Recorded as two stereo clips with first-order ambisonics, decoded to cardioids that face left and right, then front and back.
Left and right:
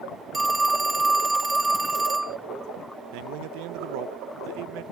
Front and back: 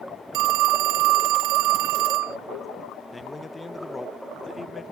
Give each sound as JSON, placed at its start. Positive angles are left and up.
{"t": 0.3, "sound": "a phone ringing", "azimuth_deg": -170}
{"t": 3.1, "sound": "a man speaking", "azimuth_deg": -80}